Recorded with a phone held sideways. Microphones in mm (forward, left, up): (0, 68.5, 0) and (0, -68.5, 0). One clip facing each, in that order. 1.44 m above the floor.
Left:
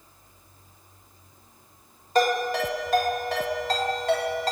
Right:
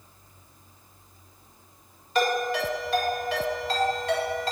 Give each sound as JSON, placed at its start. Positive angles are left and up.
{"t": 2.1, "sound": "a ringtone", "side_deg": 45, "distance_m": 2.0}